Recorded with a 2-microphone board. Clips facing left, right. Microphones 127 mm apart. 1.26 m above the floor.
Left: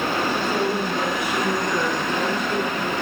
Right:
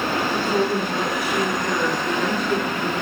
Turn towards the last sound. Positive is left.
turn(degrees=-35)  # may be behind; listen again after turning